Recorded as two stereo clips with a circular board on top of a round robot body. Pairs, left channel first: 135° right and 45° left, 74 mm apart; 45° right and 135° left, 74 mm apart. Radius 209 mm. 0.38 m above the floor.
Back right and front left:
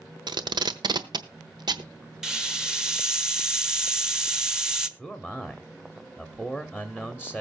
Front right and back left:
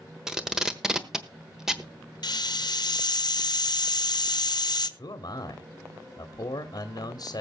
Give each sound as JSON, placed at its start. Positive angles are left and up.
{"t": 0.3, "sound": "tape being pulled", "azimuth_deg": 55, "distance_m": 1.3}
{"t": 2.2, "sound": "a hiss", "azimuth_deg": -35, "distance_m": 1.2}
{"t": 5.0, "sound": "a man speaking", "azimuth_deg": -35, "distance_m": 1.5}